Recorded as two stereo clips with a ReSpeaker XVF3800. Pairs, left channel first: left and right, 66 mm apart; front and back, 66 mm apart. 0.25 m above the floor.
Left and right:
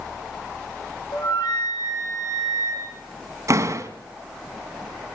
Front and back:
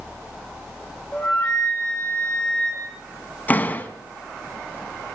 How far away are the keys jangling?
No keys jangling in this recording.